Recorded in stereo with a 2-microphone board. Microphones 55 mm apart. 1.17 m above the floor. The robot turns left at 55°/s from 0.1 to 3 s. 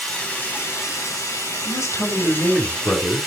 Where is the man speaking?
105° left, 3 m; by 3.3 s 35° left, 3 m.